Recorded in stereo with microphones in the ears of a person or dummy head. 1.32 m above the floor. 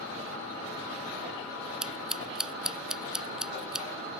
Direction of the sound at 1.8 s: Centre (ahead or behind).